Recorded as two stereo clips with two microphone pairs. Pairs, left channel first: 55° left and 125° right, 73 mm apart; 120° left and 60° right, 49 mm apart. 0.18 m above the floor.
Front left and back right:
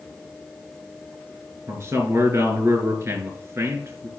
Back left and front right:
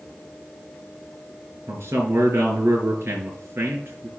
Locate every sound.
1.7 s a man speaking: 80° right, 3.5 m